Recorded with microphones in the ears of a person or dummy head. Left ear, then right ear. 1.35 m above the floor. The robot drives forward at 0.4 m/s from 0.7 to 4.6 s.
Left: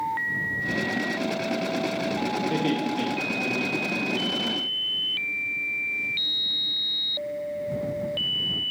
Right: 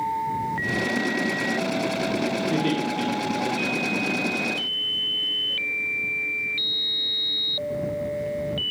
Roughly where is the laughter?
Centre.